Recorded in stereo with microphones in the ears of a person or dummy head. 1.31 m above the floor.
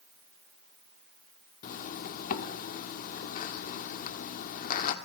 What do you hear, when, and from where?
1.6 s a zipper: 55° left (ahead or behind), 1.7 m